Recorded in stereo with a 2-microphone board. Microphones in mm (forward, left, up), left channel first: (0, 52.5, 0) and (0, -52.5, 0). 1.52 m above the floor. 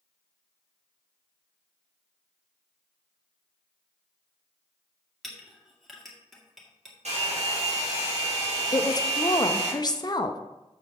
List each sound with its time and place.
5.2 s a clink: centre (ahead or behind), 1.9 m
7.0 s a hair dryer: 85° right, 3.5 m
8.7 s a woman speaking: 40° left (ahead or behind), 0.8 m